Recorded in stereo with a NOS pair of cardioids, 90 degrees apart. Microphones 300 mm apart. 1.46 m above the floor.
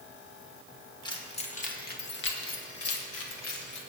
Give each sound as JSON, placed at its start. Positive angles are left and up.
{"t": 1.1, "sound": "keys jangling", "azimuth_deg": 15, "distance_m": 1.5}